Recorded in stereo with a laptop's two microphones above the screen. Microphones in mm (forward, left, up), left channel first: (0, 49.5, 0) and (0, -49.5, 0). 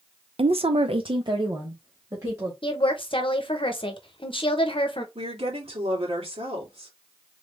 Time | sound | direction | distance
0.4 | a woman speaking | 70° right (ahead or behind) | 0.5 m
2.6 | a woman speaking | 60° left (ahead or behind) | 0.8 m
5.2 | a woman speaking | 80° right | 2.5 m